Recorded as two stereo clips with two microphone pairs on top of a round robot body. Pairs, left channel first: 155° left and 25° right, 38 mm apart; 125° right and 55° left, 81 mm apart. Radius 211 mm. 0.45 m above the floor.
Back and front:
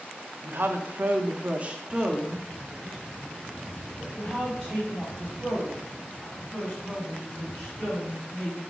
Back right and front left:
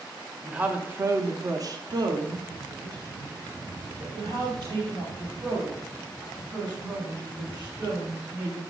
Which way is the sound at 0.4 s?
20° right.